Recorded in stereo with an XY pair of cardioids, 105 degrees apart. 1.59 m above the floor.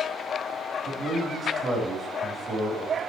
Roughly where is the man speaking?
Ahead right.